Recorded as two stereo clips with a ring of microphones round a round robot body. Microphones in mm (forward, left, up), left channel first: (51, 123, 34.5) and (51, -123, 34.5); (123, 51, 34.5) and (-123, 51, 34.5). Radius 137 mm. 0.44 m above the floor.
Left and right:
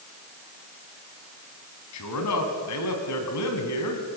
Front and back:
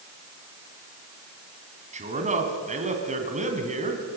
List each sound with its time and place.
1.9 s a man speaking: 120° left, 3.5 m